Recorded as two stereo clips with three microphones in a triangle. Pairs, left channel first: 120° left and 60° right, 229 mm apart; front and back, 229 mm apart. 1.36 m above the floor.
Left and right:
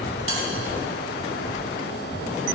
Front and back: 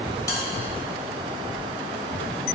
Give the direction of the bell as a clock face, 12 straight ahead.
3 o'clock.